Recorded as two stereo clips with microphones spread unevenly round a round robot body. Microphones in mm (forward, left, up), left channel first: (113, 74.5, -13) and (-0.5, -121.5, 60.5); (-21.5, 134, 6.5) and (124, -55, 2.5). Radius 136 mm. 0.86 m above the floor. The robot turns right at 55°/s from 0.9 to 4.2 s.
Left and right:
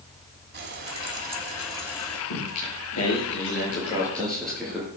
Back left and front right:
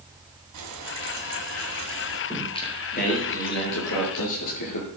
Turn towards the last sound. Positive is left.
turn(degrees=150)